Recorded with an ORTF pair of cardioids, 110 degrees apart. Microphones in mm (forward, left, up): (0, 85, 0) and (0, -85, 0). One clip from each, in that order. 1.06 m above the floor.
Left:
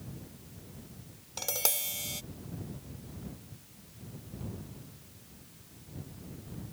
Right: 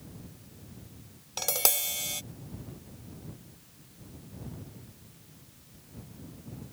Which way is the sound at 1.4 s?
30° right.